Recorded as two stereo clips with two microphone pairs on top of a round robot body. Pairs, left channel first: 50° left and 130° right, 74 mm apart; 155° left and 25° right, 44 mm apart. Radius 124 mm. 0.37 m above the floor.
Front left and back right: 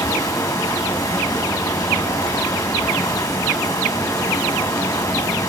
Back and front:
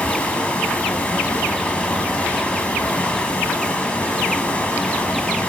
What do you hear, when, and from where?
0.0 s running water: 95° left, 3 m